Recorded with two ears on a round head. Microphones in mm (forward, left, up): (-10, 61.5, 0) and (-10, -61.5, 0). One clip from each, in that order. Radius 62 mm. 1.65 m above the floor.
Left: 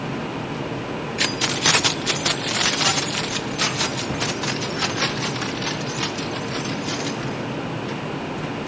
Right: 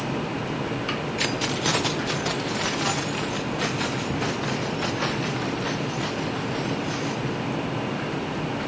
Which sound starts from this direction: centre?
Keys jangling, at 1.2 s.